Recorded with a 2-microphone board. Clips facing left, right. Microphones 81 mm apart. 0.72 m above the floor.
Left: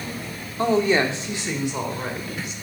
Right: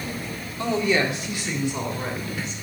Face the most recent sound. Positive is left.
turn(degrees=10)  # may be behind; listen again after turning